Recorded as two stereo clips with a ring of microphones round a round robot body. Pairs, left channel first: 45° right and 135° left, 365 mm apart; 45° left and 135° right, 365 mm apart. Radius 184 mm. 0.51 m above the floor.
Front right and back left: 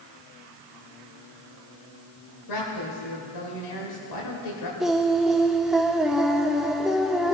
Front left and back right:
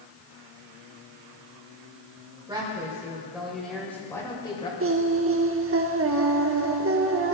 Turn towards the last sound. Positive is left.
turn(degrees=-135)